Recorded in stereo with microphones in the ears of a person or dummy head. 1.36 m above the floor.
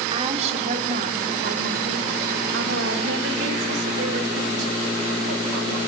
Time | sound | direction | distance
0.1 | a woman speaking | 30° right (ahead or behind) | 4 m